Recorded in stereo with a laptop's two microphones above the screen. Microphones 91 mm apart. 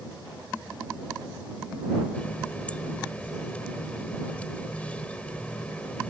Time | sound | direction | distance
2.1 | a running tap | 15° left (ahead or behind) | ?